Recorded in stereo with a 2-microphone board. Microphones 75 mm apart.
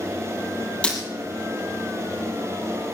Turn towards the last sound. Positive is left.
turn(degrees=15)  # may be behind; listen again after turning